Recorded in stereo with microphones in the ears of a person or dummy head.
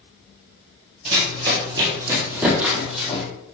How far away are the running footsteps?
About 1.9 m.